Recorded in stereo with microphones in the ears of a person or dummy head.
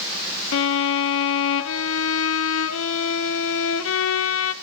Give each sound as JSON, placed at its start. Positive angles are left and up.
{"t": 0.5, "sound": "a violin", "side_deg": 80, "distance_m": 0.7}